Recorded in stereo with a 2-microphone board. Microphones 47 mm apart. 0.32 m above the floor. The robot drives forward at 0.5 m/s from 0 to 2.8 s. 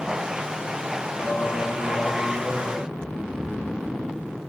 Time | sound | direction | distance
1.2 | singing | 80° left | 0.9 m
2.9 | snoring | 10° left (ahead or behind) | 1.7 m